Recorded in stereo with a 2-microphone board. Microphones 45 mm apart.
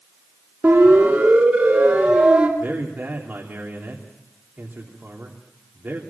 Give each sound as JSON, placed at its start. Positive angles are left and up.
{"t": 0.6, "sound": "a siren", "side_deg": -40, "distance_m": 4.5}
{"t": 2.6, "sound": "a man speaking", "side_deg": -45, "distance_m": 3.0}